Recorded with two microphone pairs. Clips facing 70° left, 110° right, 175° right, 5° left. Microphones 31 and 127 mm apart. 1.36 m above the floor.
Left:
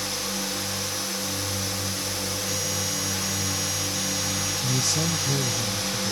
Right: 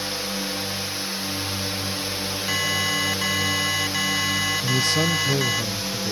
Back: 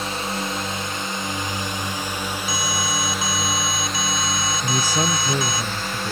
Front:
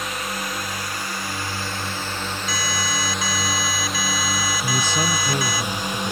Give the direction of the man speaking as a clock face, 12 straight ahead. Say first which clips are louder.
Right 3 dB, back 2 dB; 3 o'clock.